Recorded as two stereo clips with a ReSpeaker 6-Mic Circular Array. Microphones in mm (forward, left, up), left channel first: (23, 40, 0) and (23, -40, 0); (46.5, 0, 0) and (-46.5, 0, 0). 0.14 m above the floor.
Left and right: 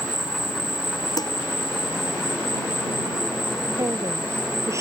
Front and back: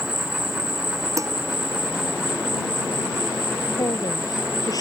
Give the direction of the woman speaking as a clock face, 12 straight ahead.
1 o'clock.